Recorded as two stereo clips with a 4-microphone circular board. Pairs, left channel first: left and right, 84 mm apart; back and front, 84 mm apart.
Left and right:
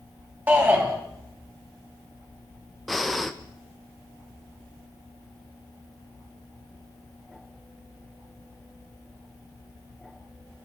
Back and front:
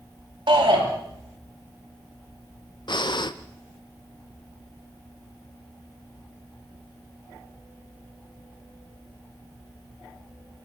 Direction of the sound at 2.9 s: Straight behind.